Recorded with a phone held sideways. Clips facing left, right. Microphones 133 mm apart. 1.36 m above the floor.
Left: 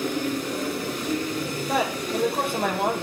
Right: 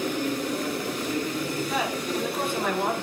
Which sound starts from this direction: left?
A man speaking, at 1.7 s.